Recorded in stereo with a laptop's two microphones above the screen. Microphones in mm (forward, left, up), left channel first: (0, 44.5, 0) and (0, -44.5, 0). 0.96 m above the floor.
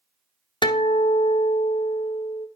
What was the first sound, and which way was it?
A guitar, 60° left (ahead or behind).